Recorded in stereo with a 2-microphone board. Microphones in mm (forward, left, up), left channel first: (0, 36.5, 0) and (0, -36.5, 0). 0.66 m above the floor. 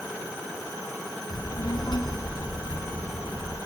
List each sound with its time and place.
1.3 s a child speaking: 75° left (ahead or behind), 4.5 m; by 3.6 s 85° left, 5.5 m